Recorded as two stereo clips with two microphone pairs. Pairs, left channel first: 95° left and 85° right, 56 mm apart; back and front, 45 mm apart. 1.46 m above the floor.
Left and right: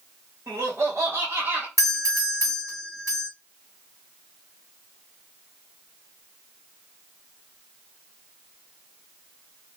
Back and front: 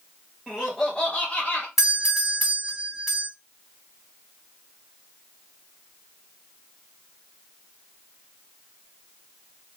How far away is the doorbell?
About 2.5 m.